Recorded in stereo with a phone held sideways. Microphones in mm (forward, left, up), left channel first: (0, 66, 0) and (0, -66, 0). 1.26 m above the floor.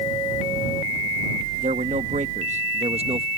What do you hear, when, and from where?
1.6 s a man speaking: 75° right (ahead or behind); by 3.3 s 45° right (ahead or behind)